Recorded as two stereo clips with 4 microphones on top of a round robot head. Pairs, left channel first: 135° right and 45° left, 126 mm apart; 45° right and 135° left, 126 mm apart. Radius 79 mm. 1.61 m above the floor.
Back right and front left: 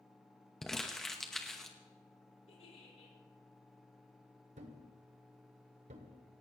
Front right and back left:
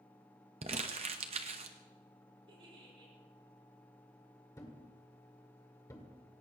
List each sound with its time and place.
0.6 s crumpling: 145° left, 0.9 m
2.5 s a giggle: 175° right, 6.5 m
4.6 s a thud: 20° left, 2.0 m